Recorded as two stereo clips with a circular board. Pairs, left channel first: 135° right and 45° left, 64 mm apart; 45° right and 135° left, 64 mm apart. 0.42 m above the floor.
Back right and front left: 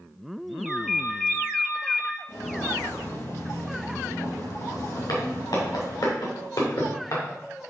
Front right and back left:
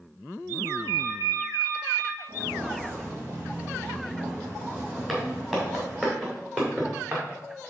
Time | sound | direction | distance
0.7 | a ringtone | 120° left | 2 m
2.3 | footsteps | 175° left | 3 m
5.1 | footsteps | 145° right | 3.5 m